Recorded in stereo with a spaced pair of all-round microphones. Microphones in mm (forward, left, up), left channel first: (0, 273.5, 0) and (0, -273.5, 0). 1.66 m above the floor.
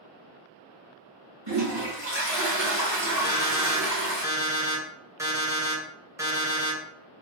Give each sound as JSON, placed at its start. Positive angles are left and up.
{"t": 1.5, "sound": "a toilet flushing", "side_deg": -50, "distance_m": 1.9}
{"t": 3.2, "sound": "an alarm clock", "side_deg": -5, "distance_m": 1.1}